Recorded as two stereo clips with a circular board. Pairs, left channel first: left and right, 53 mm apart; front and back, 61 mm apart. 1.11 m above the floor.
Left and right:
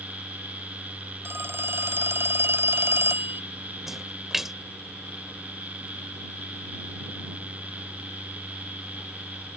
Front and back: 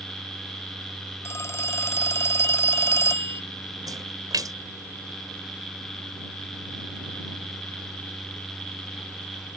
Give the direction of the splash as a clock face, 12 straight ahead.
6 o'clock.